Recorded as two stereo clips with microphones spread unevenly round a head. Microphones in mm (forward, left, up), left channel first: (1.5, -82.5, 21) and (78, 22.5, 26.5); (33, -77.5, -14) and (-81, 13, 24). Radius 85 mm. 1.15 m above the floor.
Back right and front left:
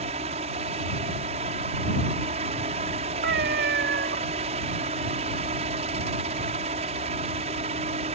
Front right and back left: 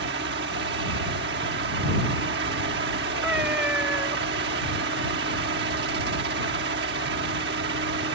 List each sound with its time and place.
0.0 s a fan: 105° left
3.2 s a cat meowing: 65° left